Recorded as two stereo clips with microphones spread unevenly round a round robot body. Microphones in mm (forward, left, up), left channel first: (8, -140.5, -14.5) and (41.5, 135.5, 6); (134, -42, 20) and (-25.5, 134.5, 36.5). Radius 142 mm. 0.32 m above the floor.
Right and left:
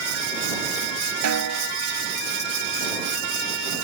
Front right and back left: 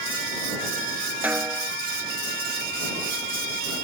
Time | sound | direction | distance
1.2 | a snare drum | 50° left | ?